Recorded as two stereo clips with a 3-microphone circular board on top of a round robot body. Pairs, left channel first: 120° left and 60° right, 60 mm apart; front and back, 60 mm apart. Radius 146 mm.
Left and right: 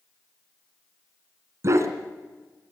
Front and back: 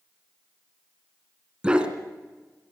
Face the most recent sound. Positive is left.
turn(degrees=-105)